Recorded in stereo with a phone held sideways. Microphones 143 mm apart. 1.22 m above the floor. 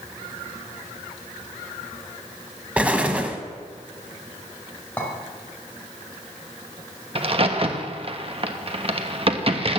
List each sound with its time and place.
2.8 s an explosion: 10° right (ahead or behind), 1.2 m
5.0 s a clink: 10° left (ahead or behind), 3 m
7.2 s a crack: 40° right (ahead or behind), 1.0 m